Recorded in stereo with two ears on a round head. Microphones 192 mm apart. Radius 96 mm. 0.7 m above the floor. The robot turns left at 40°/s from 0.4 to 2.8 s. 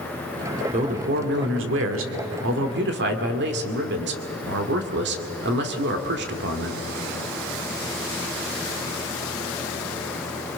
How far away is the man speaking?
About 2.5 m.